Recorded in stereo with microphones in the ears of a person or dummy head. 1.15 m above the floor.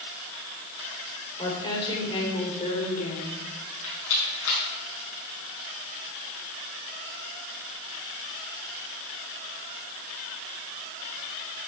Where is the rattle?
70° left (ahead or behind), 4.5 m.